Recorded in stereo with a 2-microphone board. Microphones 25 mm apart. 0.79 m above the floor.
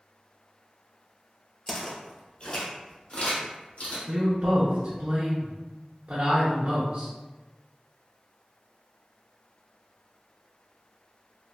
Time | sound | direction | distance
1.7 | footsteps | 15° left (ahead or behind) | 1.0 m
4.1 | a woman speaking | 55° right (ahead or behind) | 0.7 m